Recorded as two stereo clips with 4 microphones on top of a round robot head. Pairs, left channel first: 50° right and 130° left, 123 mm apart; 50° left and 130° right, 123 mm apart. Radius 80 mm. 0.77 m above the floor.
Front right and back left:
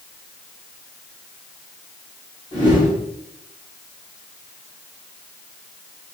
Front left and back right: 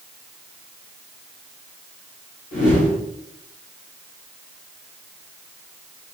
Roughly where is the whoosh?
Left.